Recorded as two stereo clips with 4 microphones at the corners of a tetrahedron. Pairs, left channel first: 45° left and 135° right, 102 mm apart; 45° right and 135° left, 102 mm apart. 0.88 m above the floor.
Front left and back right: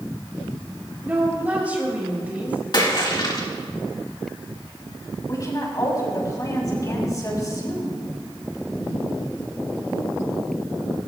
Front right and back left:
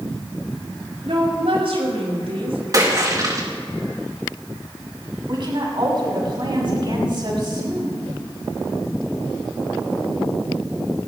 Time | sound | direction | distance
1.0 | a woman speaking | 150° left | 5.5 m
2.7 | a splash | 85° left | 3 m
5.3 | a woman speaking | 100° left | 6 m